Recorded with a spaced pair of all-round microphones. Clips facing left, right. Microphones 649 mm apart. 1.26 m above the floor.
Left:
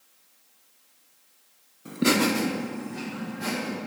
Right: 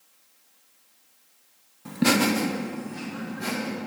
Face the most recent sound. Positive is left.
turn(degrees=0)  # may be behind; listen again after turning